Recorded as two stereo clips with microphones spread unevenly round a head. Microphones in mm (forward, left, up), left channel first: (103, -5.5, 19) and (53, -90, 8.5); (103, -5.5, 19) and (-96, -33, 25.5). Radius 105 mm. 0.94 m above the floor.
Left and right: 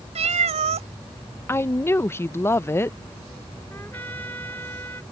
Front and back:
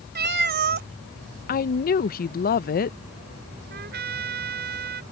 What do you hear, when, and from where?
0.1 s a cat meowing: 130° right
1.5 s a woman speaking: 5° right
3.7 s a trumpet: 140° left